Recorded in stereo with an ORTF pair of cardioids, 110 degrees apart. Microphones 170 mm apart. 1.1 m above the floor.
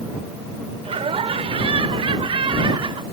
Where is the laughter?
35° right; by 3.0 s 30° right.